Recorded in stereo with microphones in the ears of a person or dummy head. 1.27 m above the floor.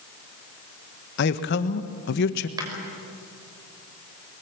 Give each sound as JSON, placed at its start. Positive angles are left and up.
{"t": 1.2, "sound": "a man speaking", "side_deg": 55, "distance_m": 1.5}
{"t": 2.6, "sound": "a clap", "side_deg": -20, "distance_m": 5.5}